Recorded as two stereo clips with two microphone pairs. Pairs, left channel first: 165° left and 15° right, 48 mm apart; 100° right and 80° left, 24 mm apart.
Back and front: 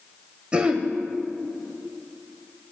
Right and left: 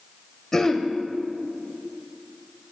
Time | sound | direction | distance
0.5 | throat clearing | 50° right | 0.6 m